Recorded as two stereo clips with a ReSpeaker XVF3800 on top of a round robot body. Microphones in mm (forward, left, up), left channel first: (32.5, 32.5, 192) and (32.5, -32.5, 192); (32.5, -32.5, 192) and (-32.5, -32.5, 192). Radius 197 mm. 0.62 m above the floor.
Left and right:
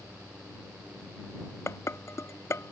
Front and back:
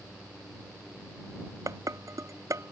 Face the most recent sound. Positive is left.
turn(degrees=140)